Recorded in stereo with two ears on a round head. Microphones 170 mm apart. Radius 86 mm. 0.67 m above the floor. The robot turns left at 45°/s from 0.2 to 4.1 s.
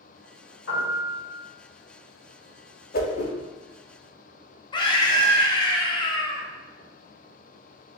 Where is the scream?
25° left (ahead or behind), 1.0 m.